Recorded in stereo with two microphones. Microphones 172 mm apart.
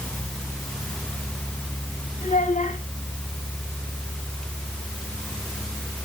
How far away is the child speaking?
About 1.9 m.